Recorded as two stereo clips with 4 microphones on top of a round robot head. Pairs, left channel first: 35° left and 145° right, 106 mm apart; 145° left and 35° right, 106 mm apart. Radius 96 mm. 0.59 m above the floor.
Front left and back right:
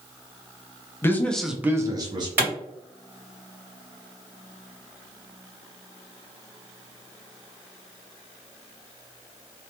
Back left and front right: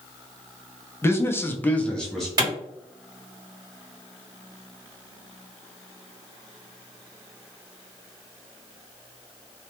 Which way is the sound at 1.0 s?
90° left.